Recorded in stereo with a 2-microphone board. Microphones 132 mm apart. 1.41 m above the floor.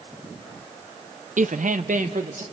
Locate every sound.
1.4 s a woman speaking: 75° right (ahead or behind), 0.5 m; by 2.4 s 80° right, 1.5 m